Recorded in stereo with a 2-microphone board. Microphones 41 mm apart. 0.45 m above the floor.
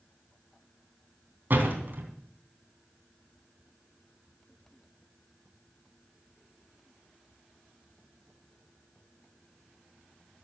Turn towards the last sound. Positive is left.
turn(degrees=-50)  # may be behind; listen again after turning